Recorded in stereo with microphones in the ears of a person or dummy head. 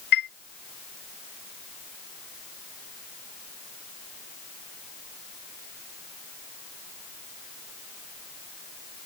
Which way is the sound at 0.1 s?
55° left (ahead or behind).